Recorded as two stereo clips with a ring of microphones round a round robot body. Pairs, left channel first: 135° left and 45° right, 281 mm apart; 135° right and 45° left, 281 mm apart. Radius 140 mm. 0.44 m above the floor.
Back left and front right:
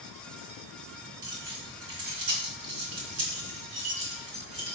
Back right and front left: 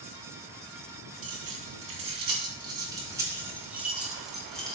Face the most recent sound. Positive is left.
turn(degrees=-50)